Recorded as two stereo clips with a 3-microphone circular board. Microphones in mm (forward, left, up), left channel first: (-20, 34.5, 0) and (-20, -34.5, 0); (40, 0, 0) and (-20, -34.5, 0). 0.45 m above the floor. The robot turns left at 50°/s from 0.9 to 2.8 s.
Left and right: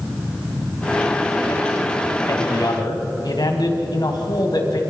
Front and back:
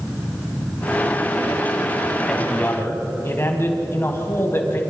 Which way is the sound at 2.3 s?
110° left.